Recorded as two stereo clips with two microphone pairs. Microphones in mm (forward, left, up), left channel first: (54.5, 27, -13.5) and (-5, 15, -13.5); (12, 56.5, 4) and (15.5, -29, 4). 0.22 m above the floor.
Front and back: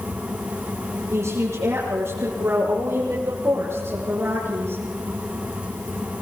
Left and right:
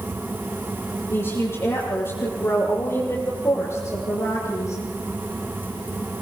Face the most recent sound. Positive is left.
turn(degrees=140)